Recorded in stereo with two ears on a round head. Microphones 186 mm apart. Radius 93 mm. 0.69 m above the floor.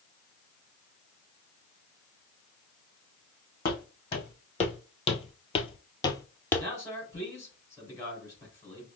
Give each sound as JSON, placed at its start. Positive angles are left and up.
{"t": 3.6, "sound": "footsteps", "side_deg": 25, "distance_m": 1.7}
{"t": 6.6, "sound": "a man speaking", "side_deg": 15, "distance_m": 3.0}